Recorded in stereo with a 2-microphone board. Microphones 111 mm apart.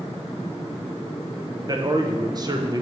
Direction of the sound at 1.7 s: 35° right (ahead or behind).